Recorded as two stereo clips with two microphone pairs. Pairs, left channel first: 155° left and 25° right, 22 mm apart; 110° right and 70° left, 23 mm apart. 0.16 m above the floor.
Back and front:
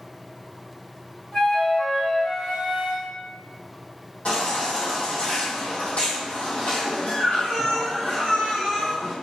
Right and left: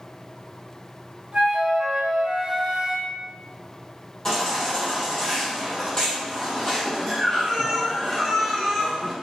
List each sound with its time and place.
1.3 s a flute: 110° left, 1.4 m
4.2 s a baby crying: 175° right, 1.9 m